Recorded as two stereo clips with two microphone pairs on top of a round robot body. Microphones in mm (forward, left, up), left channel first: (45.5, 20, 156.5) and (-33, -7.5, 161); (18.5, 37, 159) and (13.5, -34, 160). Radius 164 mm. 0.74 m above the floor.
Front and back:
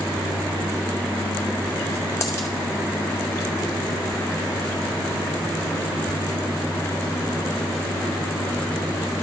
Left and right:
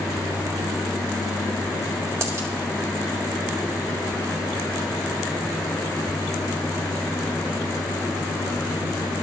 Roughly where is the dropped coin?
Ahead right.